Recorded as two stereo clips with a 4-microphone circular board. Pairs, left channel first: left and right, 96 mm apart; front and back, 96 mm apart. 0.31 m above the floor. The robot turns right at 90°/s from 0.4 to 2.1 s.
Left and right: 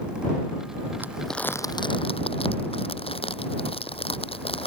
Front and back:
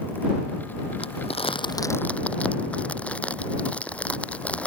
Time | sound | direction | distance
1.0 | crumpling | 20° right | ?